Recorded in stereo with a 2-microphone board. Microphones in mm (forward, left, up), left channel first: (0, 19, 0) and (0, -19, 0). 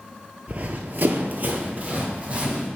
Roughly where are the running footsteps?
Right.